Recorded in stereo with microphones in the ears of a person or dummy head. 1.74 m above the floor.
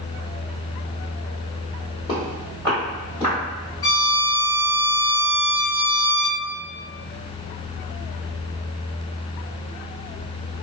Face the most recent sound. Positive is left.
turn(degrees=20)  # may be behind; listen again after turning